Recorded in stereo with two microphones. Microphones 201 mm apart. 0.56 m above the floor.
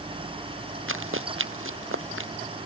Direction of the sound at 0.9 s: 85° right.